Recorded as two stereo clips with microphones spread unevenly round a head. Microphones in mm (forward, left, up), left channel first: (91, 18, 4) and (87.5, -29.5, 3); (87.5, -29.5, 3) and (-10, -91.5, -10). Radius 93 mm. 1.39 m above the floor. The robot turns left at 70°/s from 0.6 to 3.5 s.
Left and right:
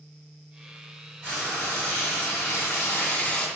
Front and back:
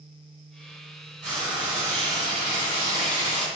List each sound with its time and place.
1.2 s frying: 175° left, 1.3 m; by 3.5 s 15° left, 1.3 m